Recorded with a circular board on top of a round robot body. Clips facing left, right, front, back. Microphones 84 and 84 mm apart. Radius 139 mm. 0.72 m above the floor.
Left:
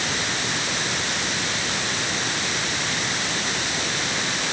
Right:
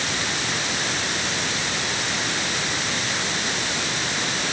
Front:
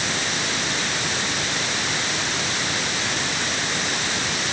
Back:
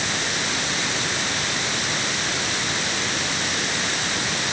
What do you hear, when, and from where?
Only background noise.